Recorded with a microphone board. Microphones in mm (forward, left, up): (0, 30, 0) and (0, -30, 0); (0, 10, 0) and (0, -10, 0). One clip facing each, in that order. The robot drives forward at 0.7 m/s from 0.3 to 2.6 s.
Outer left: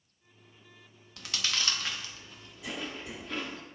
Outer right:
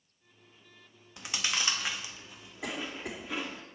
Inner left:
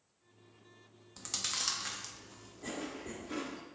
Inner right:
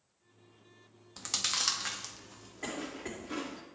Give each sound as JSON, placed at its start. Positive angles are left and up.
{"t": 1.2, "sound": "chewing", "side_deg": -20, "distance_m": 0.6}
{"t": 2.6, "sound": "a cough", "side_deg": -80, "distance_m": 3.0}